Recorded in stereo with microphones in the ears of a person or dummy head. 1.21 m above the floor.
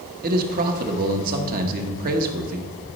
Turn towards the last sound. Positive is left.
turn(degrees=-50)  # may be behind; listen again after turning